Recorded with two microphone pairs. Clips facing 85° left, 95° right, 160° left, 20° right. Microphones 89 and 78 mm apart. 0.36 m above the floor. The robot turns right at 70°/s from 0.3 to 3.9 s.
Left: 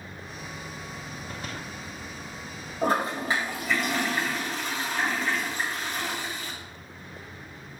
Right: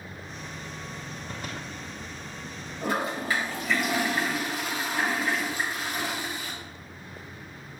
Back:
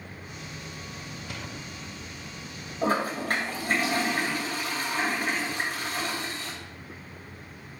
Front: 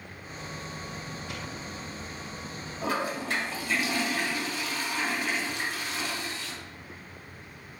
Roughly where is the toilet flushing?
Left.